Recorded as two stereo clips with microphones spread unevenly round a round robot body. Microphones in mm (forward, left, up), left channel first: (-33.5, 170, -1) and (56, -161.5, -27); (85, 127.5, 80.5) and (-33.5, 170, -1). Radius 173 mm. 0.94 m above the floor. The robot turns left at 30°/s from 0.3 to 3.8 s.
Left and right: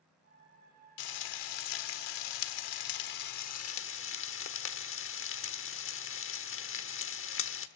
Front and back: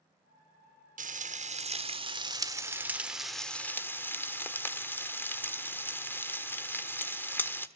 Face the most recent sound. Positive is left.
turn(degrees=50)